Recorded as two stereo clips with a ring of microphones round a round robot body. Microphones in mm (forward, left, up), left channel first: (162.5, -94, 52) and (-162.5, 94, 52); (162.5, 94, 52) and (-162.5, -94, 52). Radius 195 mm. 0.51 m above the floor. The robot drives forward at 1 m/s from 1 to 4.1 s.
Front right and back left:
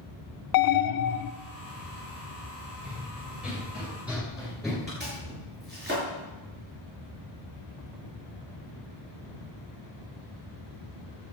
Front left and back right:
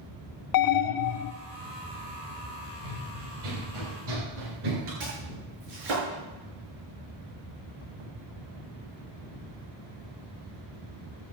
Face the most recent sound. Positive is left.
turn(degrees=-145)